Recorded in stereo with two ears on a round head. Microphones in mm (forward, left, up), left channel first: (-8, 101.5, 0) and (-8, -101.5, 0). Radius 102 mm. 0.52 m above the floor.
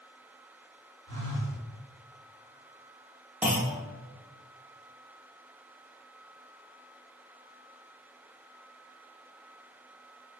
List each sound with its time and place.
1.1 s a phone buzzing: 55° right (ahead or behind), 1.5 m
3.4 s a clunk: 5° right (ahead or behind), 0.5 m